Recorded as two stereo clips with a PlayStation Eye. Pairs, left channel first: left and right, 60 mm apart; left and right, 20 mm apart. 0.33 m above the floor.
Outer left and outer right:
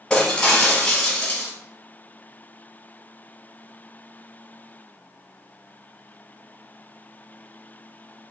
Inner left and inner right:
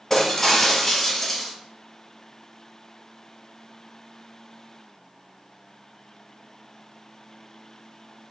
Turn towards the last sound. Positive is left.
turn(degrees=15)  # may be behind; listen again after turning